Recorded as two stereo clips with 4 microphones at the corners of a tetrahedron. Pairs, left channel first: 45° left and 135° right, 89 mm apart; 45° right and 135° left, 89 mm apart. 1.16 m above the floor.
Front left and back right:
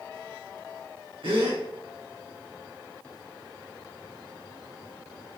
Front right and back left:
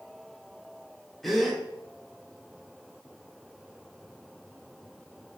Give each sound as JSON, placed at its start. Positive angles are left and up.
{"t": 1.2, "sound": "a gasp", "azimuth_deg": -135, "distance_m": 3.5}